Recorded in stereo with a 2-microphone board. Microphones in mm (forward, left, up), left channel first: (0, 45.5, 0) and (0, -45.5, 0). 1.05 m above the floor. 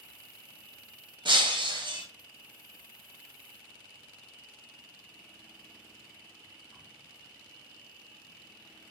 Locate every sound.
0.0 s an insect: 15° right (ahead or behind), 1.0 m
1.2 s breaking glass: 60° right (ahead or behind), 0.6 m